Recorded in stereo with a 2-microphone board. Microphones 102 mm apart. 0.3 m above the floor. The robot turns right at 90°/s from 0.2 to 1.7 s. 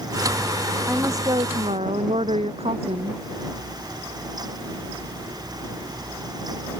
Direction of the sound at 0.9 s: 170° right.